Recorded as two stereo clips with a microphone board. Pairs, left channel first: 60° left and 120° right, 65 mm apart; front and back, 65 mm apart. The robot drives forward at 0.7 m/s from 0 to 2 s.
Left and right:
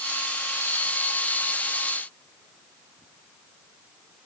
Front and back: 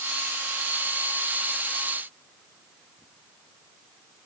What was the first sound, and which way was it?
Only background noise.